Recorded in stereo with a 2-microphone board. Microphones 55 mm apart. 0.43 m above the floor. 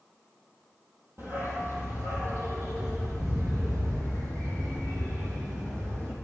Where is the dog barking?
50° right (ahead or behind), 3 m; by 6.2 s 75° right (ahead or behind), 4 m.